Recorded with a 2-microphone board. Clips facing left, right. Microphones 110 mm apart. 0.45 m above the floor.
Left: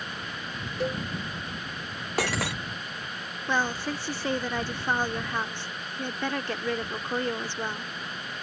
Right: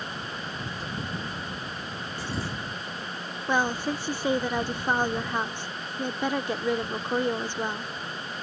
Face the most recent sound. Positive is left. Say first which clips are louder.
# right 2 dB
turn(degrees=-15)  # may be behind; listen again after turning